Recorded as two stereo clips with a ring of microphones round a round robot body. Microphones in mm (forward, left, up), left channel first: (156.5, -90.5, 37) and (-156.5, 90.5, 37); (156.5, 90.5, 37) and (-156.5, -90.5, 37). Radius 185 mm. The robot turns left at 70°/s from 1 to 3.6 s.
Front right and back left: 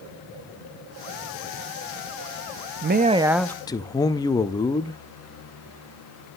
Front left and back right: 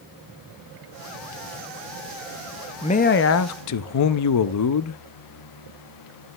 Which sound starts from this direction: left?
A man speaking, at 2.8 s.